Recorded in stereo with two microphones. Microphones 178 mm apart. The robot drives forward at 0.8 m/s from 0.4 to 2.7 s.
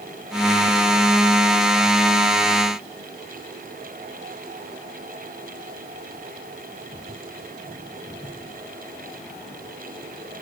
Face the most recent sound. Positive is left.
No sound to turn to.